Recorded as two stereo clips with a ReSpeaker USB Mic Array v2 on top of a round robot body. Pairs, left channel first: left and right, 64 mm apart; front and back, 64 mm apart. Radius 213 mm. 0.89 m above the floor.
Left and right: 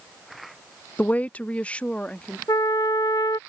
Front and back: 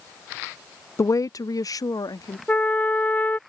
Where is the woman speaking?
30° left; by 2.4 s 20° left.